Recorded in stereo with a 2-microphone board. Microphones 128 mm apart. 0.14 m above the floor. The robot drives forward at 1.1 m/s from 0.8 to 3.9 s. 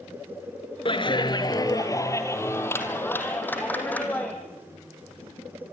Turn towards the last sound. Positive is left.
turn(degrees=10)  # may be behind; listen again after turning